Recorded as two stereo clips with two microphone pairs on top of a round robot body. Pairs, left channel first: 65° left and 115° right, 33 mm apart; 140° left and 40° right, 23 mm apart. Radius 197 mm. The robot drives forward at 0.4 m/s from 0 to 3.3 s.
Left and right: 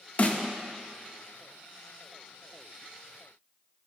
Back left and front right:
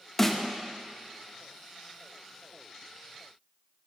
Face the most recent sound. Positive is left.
turn(degrees=120)